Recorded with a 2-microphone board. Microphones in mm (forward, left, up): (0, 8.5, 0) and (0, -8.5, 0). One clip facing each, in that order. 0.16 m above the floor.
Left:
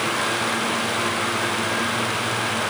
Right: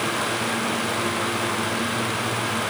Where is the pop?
I don't hear a pop.